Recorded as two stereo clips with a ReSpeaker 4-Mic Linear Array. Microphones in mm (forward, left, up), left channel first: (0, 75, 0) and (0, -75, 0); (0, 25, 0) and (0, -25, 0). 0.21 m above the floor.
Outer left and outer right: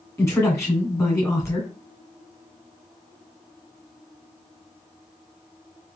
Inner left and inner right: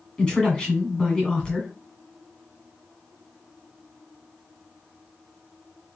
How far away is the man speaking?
About 1.5 m.